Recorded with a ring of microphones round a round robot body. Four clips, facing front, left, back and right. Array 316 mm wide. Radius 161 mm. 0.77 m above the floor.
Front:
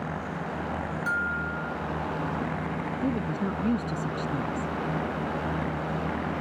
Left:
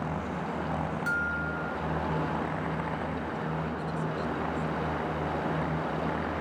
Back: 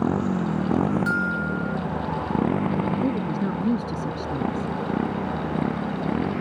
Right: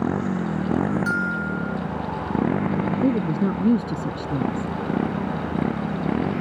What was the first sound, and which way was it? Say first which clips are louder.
A motorcycle: right 9 dB, back 10 dB; 140° right.